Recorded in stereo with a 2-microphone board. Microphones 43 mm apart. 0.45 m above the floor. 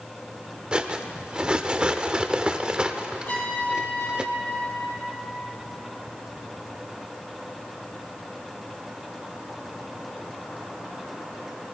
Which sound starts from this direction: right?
Cutlery clinking, at 0.7 s.